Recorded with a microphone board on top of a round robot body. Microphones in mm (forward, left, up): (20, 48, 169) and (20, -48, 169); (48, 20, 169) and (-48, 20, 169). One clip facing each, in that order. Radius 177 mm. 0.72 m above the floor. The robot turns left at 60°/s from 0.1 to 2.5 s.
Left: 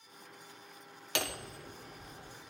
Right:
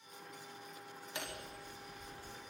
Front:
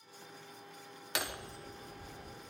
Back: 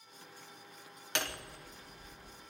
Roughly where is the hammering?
Left.